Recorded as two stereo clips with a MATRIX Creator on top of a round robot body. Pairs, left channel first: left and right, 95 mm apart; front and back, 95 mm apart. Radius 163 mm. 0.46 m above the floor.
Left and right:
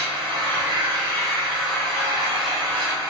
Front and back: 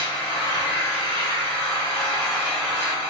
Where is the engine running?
75° right, 1.6 m.